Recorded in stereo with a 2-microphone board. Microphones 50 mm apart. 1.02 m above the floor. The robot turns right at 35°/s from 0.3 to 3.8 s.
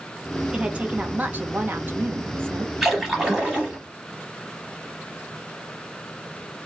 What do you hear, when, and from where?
0.5 s a woman speaking: 150° right, 0.6 m; by 2.7 s 75° right, 0.6 m
2.8 s a splash: 5° right (ahead or behind), 0.9 m; by 3.8 s 20° right (ahead or behind), 0.9 m